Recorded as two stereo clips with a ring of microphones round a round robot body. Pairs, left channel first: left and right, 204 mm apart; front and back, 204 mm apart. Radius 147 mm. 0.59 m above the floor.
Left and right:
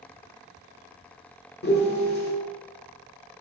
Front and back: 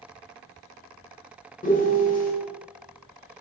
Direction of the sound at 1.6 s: 50° left.